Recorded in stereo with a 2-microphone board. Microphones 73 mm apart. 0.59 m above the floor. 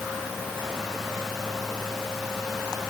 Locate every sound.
Only background noise.